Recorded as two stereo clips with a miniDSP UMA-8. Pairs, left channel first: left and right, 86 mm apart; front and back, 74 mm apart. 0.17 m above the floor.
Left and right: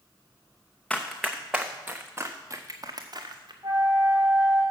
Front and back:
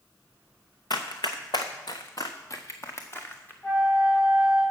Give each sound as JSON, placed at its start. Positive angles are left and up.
{"t": 0.9, "sound": "running footsteps", "azimuth_deg": 10, "distance_m": 1.3}
{"t": 3.6, "sound": "a flute", "azimuth_deg": -50, "distance_m": 5.0}